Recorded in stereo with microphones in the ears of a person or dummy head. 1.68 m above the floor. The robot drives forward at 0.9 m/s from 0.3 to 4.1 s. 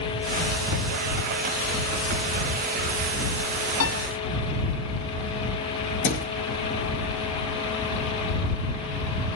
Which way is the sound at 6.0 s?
60° left (ahead or behind).